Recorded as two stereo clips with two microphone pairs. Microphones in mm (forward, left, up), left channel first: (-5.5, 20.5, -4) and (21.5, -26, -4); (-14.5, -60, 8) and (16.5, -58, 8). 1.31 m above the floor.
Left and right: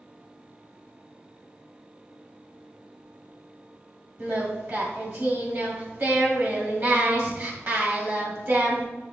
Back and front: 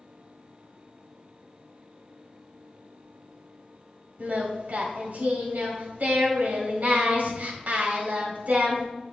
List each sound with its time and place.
4.2 s singing: 15° right, 1.8 m